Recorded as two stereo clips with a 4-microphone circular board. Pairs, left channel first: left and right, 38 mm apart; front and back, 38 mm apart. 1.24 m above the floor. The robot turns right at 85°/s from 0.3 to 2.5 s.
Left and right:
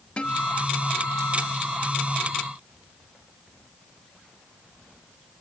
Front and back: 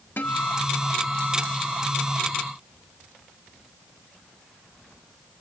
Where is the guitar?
30° left, 1.3 m; by 2.1 s 175° right, 1.3 m.